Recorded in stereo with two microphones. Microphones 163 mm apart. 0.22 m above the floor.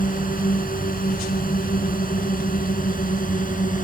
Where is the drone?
60° left (ahead or behind); by 3.9 s 55° left (ahead or behind).